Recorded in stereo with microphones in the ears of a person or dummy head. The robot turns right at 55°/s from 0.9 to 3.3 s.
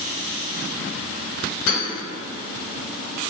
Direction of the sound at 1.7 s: 60° left (ahead or behind).